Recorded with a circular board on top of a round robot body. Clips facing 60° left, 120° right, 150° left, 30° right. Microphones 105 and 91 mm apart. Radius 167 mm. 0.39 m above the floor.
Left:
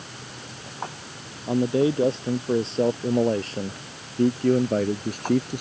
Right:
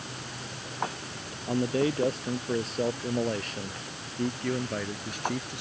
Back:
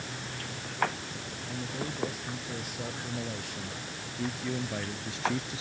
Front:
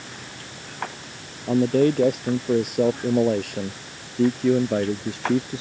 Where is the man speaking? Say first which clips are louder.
Left 5 dB, front 20 dB; 10° right; by 5.6 s 20° left.